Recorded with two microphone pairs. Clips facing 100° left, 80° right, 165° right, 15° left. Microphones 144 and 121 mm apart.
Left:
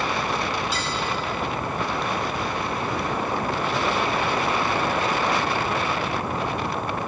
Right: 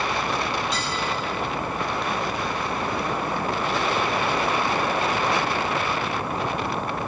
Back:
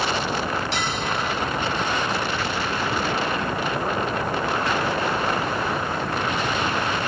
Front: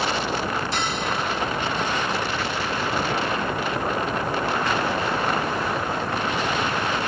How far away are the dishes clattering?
About 5.5 m.